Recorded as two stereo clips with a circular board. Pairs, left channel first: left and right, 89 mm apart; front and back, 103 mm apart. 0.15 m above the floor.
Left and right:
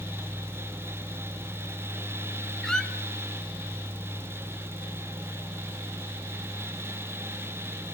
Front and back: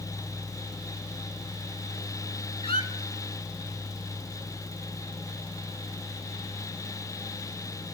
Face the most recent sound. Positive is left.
turn(degrees=5)